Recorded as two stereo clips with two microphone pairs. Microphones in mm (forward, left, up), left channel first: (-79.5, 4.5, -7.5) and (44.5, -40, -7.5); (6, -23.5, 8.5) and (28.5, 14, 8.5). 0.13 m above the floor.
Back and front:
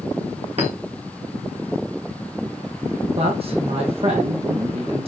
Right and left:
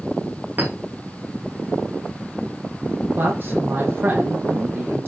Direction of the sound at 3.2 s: 20° left.